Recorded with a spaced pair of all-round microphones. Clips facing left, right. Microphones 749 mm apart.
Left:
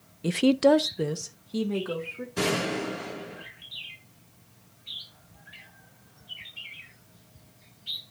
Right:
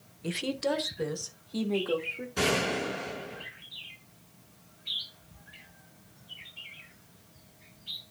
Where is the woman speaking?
65° left (ahead or behind), 0.7 m; by 2.3 s 40° left (ahead or behind), 2 m.